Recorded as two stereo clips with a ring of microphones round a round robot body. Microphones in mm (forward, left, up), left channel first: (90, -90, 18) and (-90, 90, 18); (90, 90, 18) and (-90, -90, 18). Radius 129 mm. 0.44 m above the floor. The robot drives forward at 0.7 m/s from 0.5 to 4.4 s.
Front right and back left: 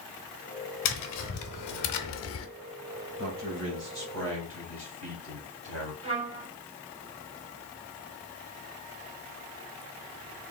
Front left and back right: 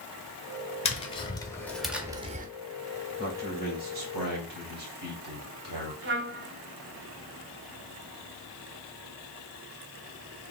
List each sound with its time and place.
0.8 s tapping: 25° right, 1.3 m; by 2.5 s 80° right, 0.6 m
3.2 s a man speaking: 170° left, 2 m; by 5.9 s 175° left, 3 m
6.0 s a trumpet: 165° right, 1.2 m